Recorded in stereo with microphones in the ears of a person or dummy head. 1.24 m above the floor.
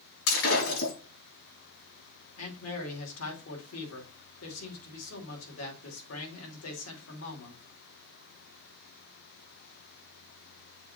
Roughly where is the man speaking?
Left.